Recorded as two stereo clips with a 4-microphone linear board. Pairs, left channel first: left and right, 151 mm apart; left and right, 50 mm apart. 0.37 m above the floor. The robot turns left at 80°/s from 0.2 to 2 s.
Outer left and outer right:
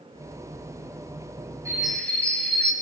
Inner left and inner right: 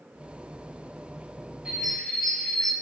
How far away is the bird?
About 3 m.